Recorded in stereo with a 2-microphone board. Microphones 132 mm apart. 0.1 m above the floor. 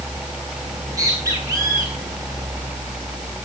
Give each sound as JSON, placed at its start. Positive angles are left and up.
{"t": 0.6, "sound": "a bird", "side_deg": -25, "distance_m": 4.0}